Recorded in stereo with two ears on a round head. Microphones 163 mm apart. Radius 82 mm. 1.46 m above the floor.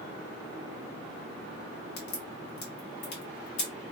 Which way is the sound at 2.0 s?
60° left (ahead or behind).